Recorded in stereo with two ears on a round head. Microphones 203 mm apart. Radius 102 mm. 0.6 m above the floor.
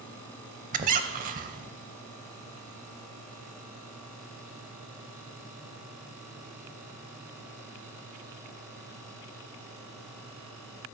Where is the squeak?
35° right (ahead or behind), 0.7 m.